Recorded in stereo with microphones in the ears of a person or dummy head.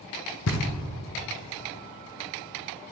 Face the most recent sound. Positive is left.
turn(degrees=75)  # may be behind; listen again after turning